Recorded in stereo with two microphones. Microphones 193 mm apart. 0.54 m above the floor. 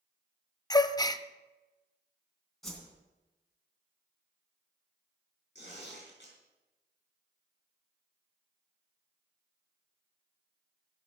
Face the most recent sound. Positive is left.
turn(degrees=70)  # may be behind; listen again after turning